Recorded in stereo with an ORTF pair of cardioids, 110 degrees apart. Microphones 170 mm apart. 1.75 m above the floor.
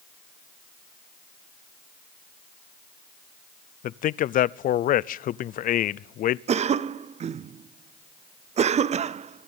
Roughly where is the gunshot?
No gunshot in this recording.